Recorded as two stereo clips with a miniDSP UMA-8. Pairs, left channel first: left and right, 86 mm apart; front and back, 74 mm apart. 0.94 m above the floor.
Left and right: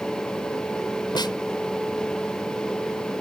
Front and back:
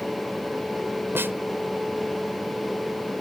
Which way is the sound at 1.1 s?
120° left.